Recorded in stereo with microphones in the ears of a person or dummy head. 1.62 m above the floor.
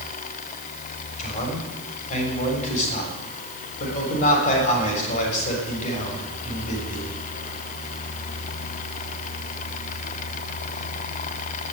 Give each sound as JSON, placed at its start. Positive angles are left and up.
{"t": 1.2, "sound": "a man speaking", "side_deg": 45, "distance_m": 7.0}